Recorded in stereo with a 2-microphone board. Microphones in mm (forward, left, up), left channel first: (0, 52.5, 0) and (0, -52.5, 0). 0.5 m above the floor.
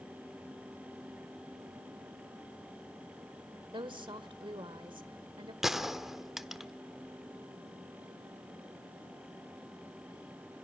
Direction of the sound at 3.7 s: 55° right (ahead or behind).